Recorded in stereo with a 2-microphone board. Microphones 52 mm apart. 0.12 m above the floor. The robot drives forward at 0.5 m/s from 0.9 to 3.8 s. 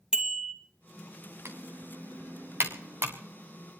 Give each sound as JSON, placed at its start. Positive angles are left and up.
{"t": 0.1, "sound": "a bicycle bell", "side_deg": -10, "distance_m": 2.5}
{"t": 1.4, "sound": "typing on a keyboard", "side_deg": -55, "distance_m": 2.5}